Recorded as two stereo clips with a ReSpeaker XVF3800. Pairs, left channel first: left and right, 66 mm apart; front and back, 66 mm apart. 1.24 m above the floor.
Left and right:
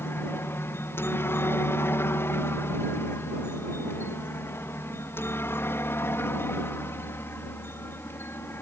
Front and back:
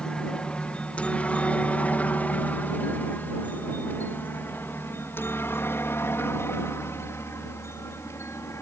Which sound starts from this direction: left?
A helicopter, at 0.0 s.